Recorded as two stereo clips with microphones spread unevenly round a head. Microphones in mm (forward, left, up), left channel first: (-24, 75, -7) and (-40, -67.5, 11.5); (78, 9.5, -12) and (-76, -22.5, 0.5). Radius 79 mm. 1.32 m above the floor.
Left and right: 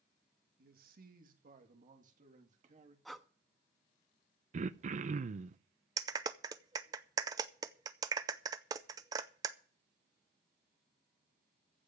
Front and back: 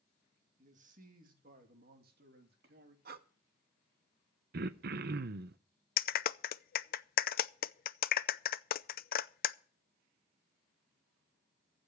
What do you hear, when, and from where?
0.6 s a man speaking: 120° right, 2.5 m; by 3.0 s 140° right, 3 m
3.0 s breathing: straight behind, 1.0 m
4.5 s throat clearing: 135° right, 0.7 m
6.0 s a clap: 25° right, 0.5 m